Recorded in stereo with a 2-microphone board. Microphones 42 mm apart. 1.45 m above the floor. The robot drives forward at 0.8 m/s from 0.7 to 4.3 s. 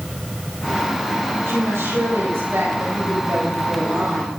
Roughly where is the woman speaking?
Right.